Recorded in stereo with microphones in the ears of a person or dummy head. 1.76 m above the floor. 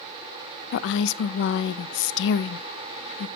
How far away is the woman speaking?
About 0.5 m.